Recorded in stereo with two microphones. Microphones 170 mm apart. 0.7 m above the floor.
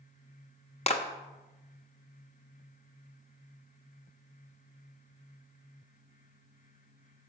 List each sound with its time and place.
0.9 s a clap: 40° left (ahead or behind), 0.8 m